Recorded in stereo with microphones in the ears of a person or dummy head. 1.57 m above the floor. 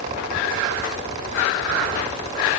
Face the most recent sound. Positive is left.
No sound to turn to.